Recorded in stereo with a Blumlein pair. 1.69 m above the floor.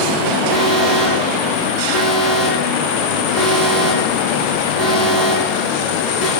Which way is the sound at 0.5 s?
25° left.